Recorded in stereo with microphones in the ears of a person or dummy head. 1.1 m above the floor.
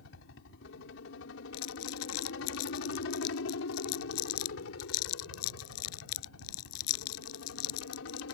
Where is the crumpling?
90° left.